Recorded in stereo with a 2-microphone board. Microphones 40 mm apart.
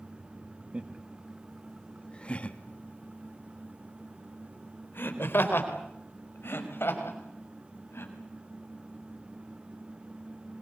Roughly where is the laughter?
Right.